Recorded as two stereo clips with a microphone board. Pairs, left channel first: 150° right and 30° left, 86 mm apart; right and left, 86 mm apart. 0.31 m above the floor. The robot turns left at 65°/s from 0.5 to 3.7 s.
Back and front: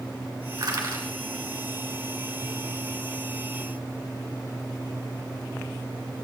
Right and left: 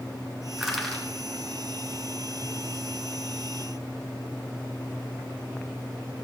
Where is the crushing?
5° left, 2.5 m; by 1.1 s 30° right, 2.5 m.